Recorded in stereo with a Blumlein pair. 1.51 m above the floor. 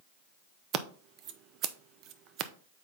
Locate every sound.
0.7 s scissors: 35° right, 0.6 m